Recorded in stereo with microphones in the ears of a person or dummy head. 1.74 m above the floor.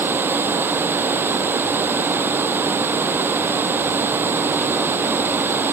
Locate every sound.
0.0 s running water: 10° right (ahead or behind)